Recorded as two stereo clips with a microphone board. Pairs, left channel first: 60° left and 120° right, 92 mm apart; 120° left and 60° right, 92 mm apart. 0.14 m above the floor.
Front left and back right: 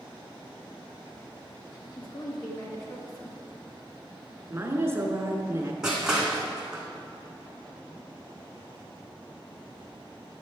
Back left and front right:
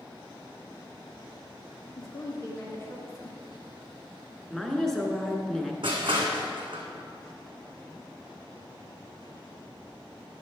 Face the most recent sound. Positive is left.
turn(degrees=-35)